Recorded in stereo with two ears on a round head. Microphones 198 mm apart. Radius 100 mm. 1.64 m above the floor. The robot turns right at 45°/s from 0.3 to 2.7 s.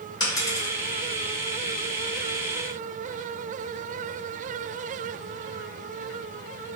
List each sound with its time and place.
0.2 s a dropped coin: 20° left (ahead or behind), 1.7 m; by 0.7 s 5° left (ahead or behind), 1.7 m